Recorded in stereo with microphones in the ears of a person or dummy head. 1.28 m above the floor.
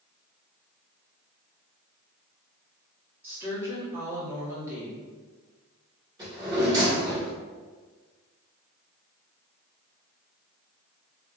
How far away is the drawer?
About 1.6 m.